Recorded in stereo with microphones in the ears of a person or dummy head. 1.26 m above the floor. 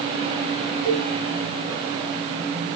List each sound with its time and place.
0.8 s a cowbell: 10° right (ahead or behind), 2.0 m